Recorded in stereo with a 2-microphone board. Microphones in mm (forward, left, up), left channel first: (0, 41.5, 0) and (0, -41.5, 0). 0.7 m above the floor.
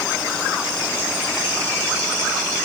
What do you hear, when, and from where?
Only background noise.